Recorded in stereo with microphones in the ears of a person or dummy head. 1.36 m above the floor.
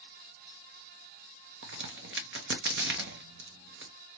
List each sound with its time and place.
1.6 s a crack: 65° right (ahead or behind), 1.0 m